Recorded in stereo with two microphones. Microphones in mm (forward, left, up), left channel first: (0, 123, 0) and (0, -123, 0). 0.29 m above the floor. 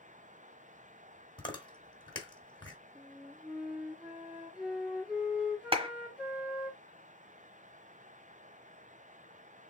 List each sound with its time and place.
1.4 s chewing: 20° left (ahead or behind), 1.4 m
3.0 s a flute: 5° right (ahead or behind), 2 m
5.7 s a clap: 20° right (ahead or behind), 1.2 m